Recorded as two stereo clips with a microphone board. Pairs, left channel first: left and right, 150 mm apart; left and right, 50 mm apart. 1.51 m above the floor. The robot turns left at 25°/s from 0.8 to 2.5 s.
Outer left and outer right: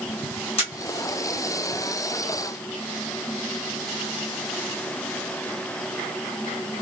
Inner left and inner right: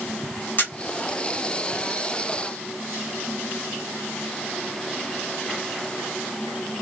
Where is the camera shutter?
45° left (ahead or behind), 1.6 m.